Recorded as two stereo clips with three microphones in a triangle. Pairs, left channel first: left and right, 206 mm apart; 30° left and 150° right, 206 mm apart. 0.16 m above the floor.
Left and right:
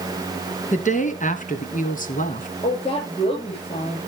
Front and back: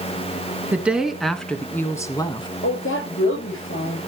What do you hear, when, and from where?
0.7 s a woman speaking: 130° left, 1.8 m; by 2.5 s 80° left, 1.5 m
2.6 s a woman speaking: 30° left, 8 m